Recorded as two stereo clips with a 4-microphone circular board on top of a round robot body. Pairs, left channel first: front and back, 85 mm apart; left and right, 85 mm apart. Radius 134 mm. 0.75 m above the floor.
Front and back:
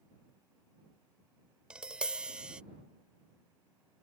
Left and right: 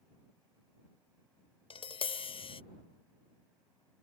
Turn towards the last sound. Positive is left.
turn(degrees=100)